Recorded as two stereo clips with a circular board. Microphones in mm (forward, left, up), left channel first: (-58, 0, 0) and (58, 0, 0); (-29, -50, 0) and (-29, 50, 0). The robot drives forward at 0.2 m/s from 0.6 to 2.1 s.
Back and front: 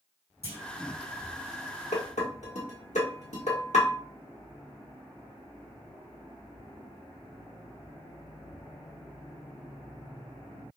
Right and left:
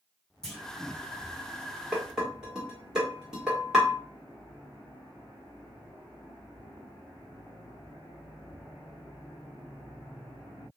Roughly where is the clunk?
Behind.